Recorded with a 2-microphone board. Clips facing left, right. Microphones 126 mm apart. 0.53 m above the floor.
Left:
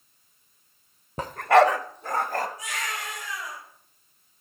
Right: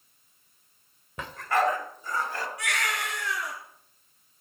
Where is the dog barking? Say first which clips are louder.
Left 8 dB; 35° left (ahead or behind), 0.8 m; by 2.5 s 50° left (ahead or behind), 1.5 m.